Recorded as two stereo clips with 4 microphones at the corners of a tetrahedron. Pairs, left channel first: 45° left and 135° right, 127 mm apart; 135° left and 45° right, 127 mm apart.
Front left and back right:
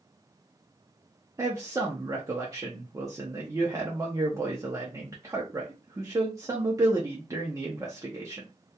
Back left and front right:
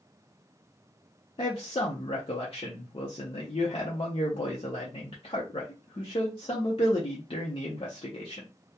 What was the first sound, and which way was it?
A man speaking, 165° left.